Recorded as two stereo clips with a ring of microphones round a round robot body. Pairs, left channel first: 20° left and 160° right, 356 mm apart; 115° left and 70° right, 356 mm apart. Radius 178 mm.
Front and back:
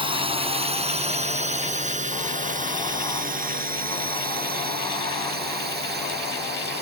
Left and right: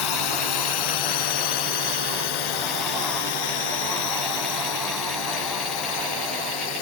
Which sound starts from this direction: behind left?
A drone, at 0.0 s.